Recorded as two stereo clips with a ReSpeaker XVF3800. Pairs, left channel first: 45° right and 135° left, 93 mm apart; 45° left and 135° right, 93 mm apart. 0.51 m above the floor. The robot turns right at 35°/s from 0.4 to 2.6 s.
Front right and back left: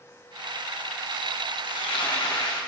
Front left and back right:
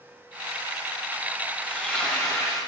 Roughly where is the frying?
Ahead right.